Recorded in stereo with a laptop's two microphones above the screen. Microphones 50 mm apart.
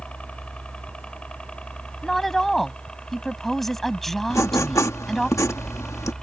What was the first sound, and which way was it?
A helicopter, 25° left (ahead or behind).